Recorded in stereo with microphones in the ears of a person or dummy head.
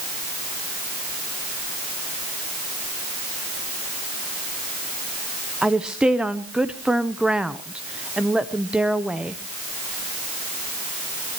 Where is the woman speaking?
5° right (ahead or behind), 0.8 m.